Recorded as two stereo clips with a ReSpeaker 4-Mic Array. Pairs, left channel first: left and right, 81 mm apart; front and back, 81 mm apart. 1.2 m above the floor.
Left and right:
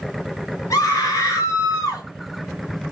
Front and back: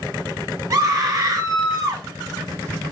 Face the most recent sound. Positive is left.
turn(degrees=135)